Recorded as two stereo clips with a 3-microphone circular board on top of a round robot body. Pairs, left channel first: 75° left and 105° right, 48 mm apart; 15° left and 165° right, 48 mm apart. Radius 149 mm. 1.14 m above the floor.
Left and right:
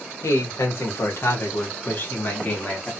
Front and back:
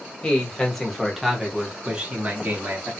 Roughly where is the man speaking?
Left.